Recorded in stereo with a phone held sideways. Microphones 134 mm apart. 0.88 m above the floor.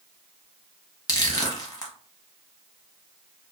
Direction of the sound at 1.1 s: 30° left (ahead or behind).